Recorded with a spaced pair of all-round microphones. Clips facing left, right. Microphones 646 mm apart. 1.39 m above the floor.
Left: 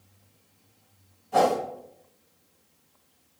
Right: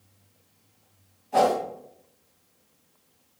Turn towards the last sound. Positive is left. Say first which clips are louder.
# even
turn(degrees=55)  # may be behind; listen again after turning